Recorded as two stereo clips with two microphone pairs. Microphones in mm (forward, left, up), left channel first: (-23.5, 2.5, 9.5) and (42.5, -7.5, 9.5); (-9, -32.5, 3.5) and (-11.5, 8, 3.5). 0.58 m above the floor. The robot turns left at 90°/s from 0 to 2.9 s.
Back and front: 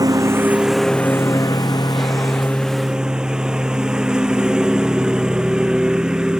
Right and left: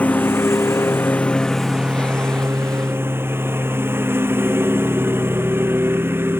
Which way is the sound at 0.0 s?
30° right.